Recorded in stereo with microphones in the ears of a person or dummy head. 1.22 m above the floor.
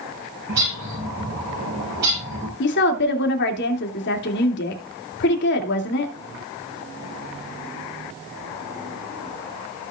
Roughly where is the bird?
Right.